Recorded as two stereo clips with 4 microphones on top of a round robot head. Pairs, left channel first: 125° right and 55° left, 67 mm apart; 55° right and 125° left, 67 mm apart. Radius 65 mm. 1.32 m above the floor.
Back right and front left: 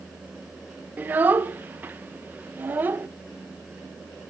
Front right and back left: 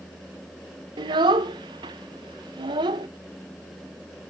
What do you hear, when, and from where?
1.0 s a child speaking: 120° left, 0.8 m